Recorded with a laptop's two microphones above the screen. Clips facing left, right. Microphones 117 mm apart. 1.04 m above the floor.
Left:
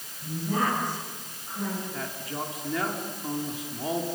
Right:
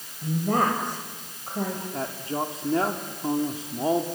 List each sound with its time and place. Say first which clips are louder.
0.2 s a woman speaking: right 4 dB; 65° right (ahead or behind), 4.5 m
1.9 s a man speaking: right 5 dB; 30° right (ahead or behind), 2 m